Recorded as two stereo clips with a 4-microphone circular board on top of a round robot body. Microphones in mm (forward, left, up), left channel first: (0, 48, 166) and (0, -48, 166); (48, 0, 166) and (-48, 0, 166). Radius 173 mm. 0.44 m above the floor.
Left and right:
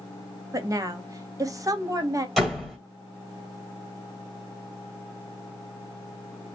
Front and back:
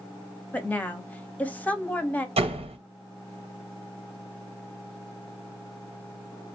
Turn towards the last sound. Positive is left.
turn(degrees=-175)